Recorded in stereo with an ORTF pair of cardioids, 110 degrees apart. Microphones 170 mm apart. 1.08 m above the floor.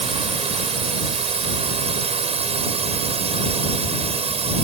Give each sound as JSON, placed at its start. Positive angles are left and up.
{"t": 0.0, "sound": "a drone", "azimuth_deg": -40}